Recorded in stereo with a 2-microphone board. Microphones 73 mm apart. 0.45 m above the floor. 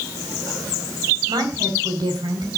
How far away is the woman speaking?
About 5 m.